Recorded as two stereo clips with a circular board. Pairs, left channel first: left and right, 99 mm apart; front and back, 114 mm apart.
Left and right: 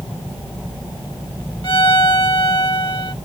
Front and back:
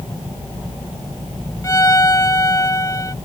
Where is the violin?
55° left.